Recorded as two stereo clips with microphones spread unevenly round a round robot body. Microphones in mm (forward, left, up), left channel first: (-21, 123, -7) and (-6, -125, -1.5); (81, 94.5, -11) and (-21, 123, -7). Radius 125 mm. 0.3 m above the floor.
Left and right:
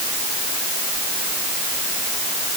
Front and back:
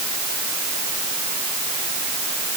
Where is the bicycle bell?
I don't hear a bicycle bell.